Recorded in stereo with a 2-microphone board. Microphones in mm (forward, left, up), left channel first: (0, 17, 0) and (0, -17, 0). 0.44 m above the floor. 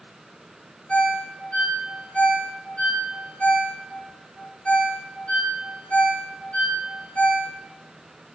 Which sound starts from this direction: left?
A ringtone, at 0.9 s.